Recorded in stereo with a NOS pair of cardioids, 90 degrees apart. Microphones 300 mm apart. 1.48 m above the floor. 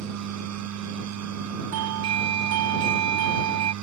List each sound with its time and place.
0.0 s a machine running: 70° right
1.7 s a doorbell: 60° right